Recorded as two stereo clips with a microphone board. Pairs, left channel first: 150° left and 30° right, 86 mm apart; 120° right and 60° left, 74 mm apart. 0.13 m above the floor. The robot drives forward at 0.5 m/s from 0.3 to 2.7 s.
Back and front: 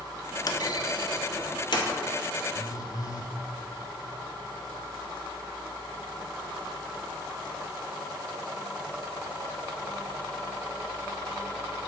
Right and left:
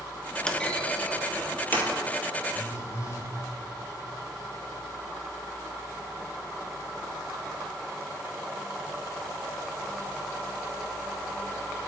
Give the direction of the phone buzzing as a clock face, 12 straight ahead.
6 o'clock.